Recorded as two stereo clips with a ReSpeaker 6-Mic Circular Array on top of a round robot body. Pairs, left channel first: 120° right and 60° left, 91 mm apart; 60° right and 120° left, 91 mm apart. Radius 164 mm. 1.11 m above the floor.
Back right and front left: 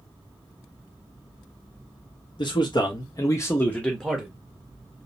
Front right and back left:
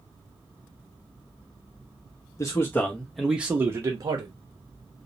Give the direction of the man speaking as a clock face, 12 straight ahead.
4 o'clock.